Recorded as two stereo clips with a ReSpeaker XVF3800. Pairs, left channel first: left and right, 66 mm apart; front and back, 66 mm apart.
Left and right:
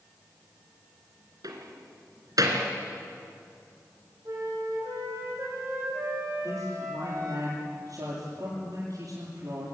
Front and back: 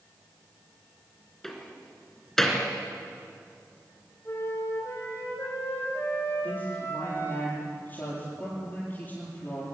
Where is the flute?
55° right, 5 m.